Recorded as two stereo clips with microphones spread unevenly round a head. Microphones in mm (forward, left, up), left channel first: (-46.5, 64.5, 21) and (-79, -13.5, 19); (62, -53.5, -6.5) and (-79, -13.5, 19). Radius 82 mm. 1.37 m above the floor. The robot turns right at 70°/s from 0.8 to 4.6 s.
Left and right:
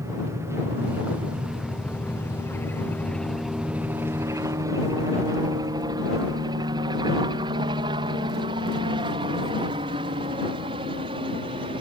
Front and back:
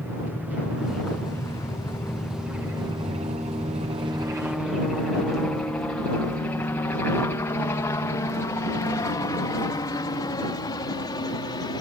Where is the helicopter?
115° right; by 11.8 s 75° right.